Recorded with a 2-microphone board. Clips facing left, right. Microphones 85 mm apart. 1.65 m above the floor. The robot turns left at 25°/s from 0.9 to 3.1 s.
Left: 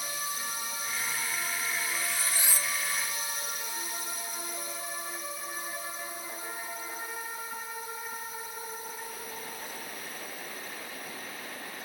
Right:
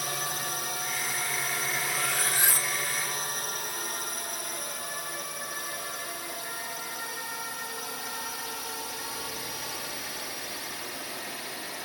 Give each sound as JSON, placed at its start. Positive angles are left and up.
{"t": 0.0, "sound": "a drone", "side_deg": -65}
{"t": 1.8, "sound": "cutlery clinking", "side_deg": -70}